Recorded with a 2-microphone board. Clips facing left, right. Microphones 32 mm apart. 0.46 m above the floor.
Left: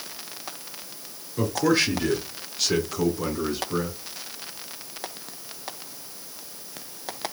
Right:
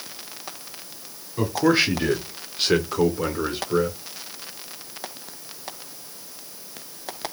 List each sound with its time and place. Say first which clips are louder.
1.4 s a man speaking: right 2 dB; 15° right (ahead or behind), 1.1 m; by 4.0 s 35° right (ahead or behind), 1.2 m